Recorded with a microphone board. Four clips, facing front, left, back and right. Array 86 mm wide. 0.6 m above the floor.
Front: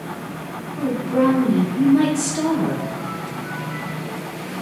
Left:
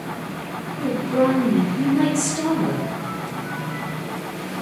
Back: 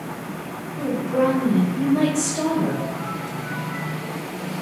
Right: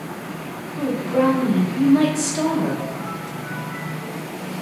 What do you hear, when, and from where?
0.8 s a woman speaking: 60° right, 1.1 m